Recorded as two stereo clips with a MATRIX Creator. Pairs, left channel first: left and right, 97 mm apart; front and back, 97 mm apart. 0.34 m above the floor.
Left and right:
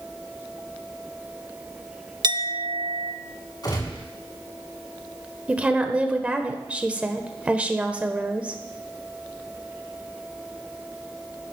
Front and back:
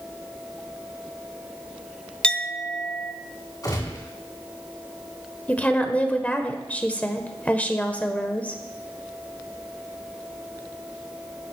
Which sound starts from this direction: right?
A clink, at 2.2 s.